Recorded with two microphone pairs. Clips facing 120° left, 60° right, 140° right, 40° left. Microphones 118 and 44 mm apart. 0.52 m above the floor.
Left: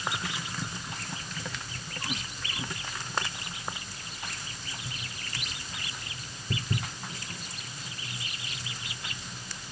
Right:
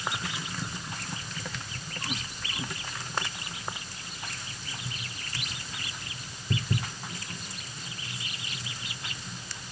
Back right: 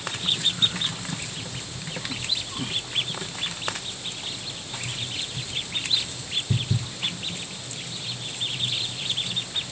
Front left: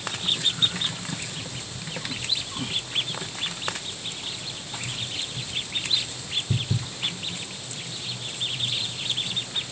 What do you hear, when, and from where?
Only background noise.